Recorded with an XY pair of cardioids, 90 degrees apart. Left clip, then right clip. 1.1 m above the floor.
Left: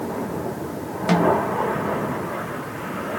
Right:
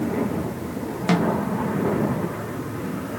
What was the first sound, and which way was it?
A snare drum, 10° right.